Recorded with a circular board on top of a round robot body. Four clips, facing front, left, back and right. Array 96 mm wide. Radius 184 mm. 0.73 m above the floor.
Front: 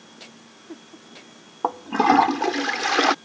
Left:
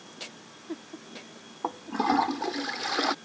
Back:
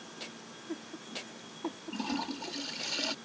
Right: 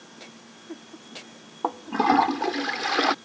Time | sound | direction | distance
1.6 | a toilet flushing | 15° right | ?